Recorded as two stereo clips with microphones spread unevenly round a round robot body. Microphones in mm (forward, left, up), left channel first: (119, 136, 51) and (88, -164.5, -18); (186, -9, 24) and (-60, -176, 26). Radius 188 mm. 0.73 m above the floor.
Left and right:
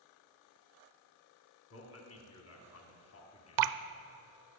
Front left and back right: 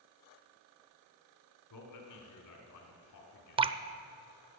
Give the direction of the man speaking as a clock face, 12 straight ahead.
11 o'clock.